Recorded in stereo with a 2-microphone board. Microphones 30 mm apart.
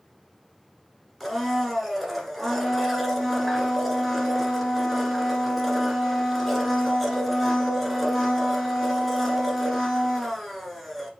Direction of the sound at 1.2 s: Centre (ahead or behind).